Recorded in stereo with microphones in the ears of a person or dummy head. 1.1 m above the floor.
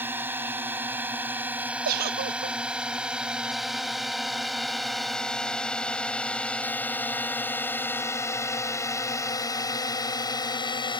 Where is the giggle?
50° right (ahead or behind).